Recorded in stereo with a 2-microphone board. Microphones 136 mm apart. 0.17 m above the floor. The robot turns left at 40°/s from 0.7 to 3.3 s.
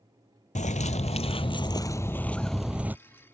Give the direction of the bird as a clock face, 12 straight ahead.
9 o'clock.